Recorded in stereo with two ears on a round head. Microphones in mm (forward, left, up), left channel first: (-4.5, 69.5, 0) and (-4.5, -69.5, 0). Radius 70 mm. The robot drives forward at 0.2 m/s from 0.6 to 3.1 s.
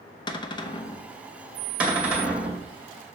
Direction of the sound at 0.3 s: 30° left (ahead or behind).